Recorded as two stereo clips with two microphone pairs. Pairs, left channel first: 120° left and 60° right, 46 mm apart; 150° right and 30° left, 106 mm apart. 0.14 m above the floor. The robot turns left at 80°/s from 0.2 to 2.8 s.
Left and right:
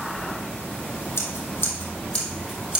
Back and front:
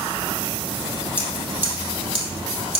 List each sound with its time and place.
1.2 s scissors: 140° left, 2 m; by 2.8 s 10° left, 2 m